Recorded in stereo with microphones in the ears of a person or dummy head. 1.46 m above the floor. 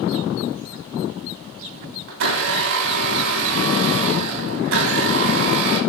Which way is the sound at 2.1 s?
75° right (ahead or behind).